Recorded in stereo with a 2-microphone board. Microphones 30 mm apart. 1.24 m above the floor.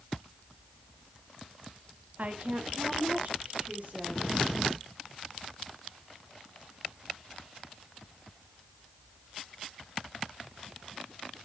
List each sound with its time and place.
2.2 s a woman speaking: 55° right (ahead or behind), 1.1 m